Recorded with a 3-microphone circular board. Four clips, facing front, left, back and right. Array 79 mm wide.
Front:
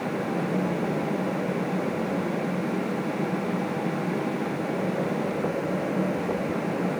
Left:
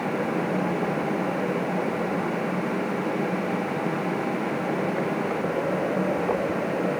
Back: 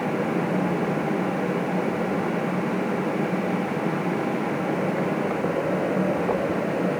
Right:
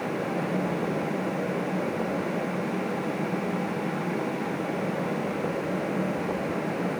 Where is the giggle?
No giggle in this recording.